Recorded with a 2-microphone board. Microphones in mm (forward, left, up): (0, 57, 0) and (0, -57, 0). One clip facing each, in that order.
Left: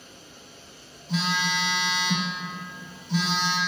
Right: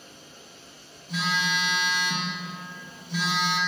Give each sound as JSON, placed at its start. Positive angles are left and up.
{"t": 1.1, "sound": "a phone buzzing", "side_deg": 85, "distance_m": 2.0}